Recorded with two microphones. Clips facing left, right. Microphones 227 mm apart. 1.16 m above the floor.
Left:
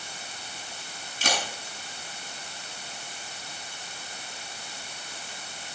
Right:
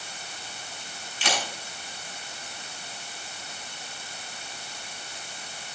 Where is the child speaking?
I don't hear a child speaking.